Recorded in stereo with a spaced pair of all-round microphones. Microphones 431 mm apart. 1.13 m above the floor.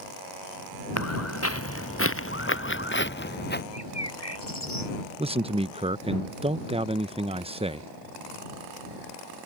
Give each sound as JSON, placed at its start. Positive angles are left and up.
{"t": 1.0, "sound": "footsteps", "side_deg": 35}
{"t": 3.7, "sound": "a bird", "side_deg": 65}
{"t": 5.2, "sound": "a man speaking", "side_deg": -15}